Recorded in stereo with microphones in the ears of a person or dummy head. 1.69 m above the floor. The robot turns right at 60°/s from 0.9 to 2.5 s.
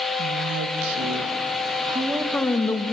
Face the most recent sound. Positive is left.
turn(degrees=15)